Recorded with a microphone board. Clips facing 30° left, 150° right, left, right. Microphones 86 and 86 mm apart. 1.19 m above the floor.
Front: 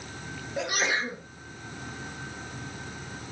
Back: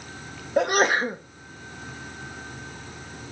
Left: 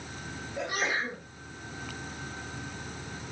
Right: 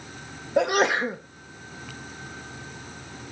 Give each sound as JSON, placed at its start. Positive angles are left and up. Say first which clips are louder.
{"t": 0.6, "sound": "a sneeze", "louder": "back 8 dB, right 11 dB", "azimuth_deg": -110, "distance_m": 0.8}